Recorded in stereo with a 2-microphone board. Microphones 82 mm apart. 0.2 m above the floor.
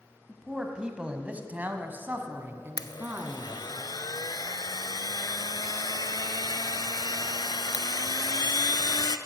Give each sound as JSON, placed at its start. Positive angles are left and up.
{"t": 0.3, "sound": "a man speaking", "side_deg": -5, "distance_m": 1.0}
{"t": 2.8, "sound": "a blender", "side_deg": 60, "distance_m": 0.5}